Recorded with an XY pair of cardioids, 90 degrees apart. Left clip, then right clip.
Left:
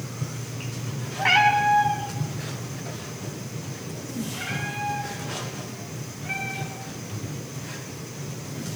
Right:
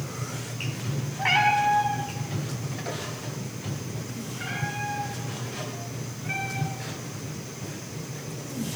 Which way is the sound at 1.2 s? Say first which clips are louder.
Left 3 dB; 15° left.